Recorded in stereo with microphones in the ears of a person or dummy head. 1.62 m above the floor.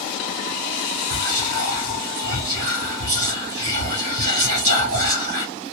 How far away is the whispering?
About 1.2 m.